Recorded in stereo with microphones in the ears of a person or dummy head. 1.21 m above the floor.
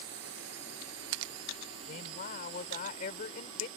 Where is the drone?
75° right (ahead or behind); by 3.8 s 85° right.